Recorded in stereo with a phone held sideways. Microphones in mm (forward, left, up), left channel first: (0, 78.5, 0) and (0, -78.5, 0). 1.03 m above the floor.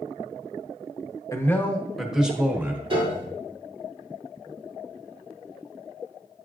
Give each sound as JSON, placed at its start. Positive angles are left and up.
{"t": 1.3, "sound": "a man speaking", "side_deg": 20, "distance_m": 0.8}
{"t": 2.9, "sound": "a piano", "side_deg": -35, "distance_m": 2.5}